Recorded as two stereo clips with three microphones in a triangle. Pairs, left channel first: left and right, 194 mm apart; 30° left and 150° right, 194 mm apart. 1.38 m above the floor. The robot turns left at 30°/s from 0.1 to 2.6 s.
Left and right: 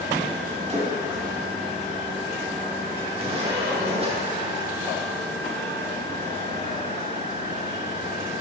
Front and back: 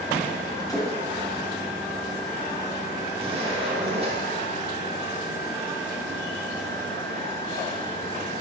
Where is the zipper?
120° right, 1.1 m.